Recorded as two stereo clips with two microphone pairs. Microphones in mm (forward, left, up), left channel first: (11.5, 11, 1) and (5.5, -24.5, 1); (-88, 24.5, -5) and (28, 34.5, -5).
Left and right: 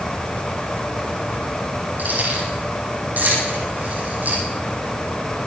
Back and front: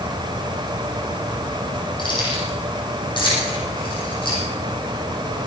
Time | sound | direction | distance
2.0 | keys jangling | 130° right | 8.5 m